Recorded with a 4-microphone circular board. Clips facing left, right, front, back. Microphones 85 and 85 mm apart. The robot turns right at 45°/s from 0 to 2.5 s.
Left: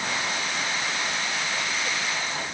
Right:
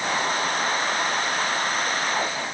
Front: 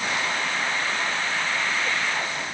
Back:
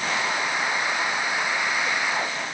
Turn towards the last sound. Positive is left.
No sound to turn to.